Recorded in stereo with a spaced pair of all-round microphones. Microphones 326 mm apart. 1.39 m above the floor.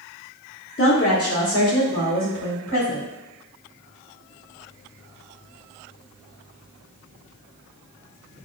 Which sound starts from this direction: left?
A woman speaking, at 0.8 s.